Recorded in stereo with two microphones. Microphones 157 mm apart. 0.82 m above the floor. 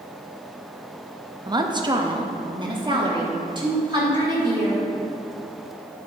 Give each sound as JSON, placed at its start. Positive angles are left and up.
{"t": 1.5, "sound": "a woman speaking", "side_deg": -25, "distance_m": 0.6}